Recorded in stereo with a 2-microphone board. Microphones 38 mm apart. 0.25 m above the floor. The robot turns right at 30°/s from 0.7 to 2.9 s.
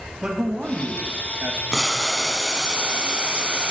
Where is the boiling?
175° left, 0.8 m; by 3.7 s 150° right, 0.8 m.